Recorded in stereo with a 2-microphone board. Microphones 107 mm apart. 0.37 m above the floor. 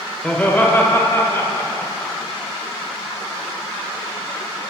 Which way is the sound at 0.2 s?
10° left (ahead or behind).